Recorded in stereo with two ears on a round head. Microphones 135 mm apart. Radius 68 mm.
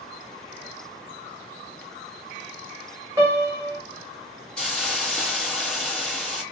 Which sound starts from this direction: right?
A piano, at 3.2 s.